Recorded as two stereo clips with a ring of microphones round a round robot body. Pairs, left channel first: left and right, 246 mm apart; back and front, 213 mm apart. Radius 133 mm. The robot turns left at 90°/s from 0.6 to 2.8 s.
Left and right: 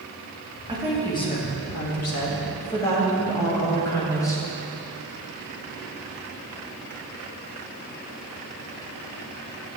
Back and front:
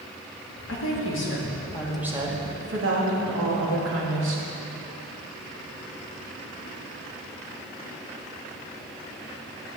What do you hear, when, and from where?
0.7 s a woman speaking: 155° right, 1.8 m; by 4.4 s 15° left, 1.8 m